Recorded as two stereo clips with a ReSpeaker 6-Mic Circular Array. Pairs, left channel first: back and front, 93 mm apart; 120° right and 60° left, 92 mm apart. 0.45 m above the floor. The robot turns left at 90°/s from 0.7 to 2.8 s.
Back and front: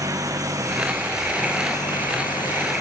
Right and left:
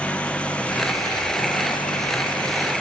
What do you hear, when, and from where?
0.0 s an engine running: 45° right; by 2.8 s 130° left